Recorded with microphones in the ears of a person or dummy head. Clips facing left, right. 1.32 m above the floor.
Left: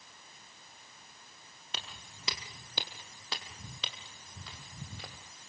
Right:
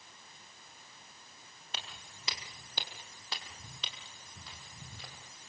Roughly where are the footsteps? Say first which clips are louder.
Left 1 dB; left.